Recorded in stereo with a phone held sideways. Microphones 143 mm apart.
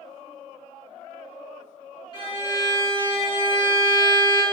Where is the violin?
35° left (ahead or behind), 2.5 m.